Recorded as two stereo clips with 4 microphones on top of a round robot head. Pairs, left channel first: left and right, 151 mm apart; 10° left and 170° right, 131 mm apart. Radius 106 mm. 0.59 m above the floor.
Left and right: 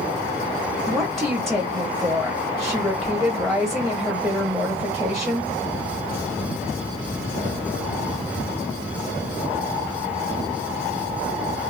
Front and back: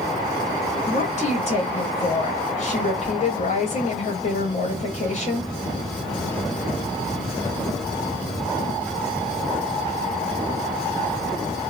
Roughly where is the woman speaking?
Ahead.